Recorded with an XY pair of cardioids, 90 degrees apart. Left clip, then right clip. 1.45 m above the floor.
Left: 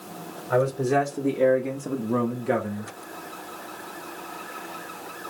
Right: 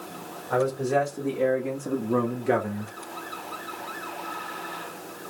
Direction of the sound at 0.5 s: 45° left.